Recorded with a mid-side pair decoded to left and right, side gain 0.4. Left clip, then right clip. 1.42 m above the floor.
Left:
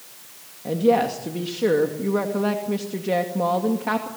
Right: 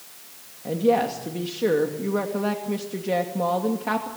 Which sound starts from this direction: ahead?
A woman speaking, at 0.7 s.